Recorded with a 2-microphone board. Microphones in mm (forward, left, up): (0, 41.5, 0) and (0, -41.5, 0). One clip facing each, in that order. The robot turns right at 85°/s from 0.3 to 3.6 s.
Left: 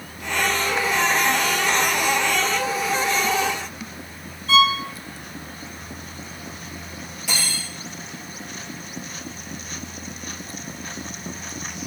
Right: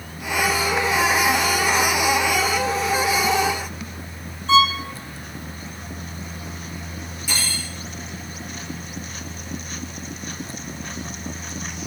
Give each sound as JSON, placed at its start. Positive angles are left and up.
{"t": 4.5, "sound": "a violin", "side_deg": -30, "distance_m": 1.1}
{"t": 7.3, "sound": "cutlery clinking", "side_deg": 65, "distance_m": 4.5}